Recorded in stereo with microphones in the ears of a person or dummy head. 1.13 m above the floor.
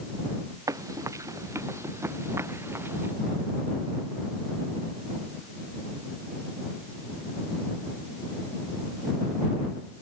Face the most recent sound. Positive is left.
turn(degrees=-10)  # may be behind; listen again after turning